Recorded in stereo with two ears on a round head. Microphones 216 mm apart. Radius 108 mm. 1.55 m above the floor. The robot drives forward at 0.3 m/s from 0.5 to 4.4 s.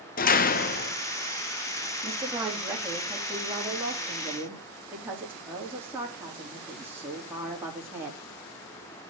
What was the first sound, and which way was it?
A door slam, 35° left (ahead or behind).